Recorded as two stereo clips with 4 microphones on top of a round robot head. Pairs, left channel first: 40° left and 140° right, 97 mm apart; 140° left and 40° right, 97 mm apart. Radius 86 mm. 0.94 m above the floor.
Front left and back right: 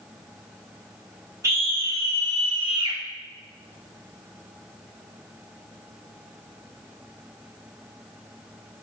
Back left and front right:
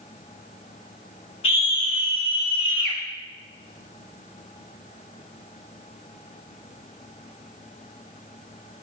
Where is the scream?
160° left, 3 m; by 3.0 s straight behind, 2.5 m.